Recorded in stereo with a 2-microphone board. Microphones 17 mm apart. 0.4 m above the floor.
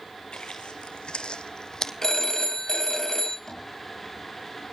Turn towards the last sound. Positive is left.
turn(degrees=45)  # may be behind; listen again after turning